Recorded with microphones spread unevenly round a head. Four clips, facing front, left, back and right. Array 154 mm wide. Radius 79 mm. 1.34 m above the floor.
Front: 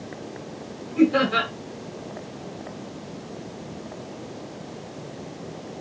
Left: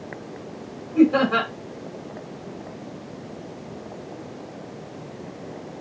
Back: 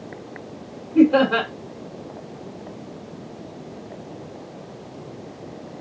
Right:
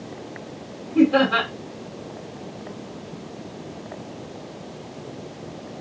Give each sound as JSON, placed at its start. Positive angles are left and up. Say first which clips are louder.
{"t": 0.9, "sound": "laughter", "louder": "even, back 4 dB", "azimuth_deg": -170, "distance_m": 2.5}